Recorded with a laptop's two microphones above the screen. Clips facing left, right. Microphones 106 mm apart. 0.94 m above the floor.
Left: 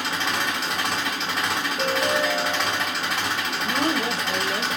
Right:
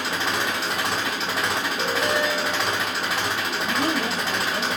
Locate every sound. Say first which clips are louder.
0.0 s an engine running: right 1 dB; centre (ahead or behind), 1.3 m
1.8 s a ringtone: left 1 dB; centre (ahead or behind), 1.1 m
3.6 s a woman speaking: left 1 dB; 35° left (ahead or behind), 1.0 m